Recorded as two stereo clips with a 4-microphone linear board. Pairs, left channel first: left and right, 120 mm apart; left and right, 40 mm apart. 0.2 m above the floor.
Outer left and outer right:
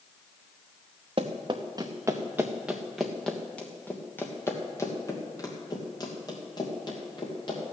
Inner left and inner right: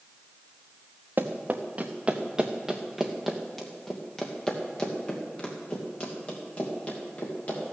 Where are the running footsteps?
45° right (ahead or behind), 1.4 m; by 7.7 s 40° left (ahead or behind), 4 m.